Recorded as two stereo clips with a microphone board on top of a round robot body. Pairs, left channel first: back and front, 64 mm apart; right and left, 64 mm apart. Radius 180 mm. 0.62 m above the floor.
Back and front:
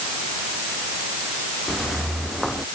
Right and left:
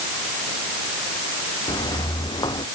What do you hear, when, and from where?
1.7 s footsteps: 90° right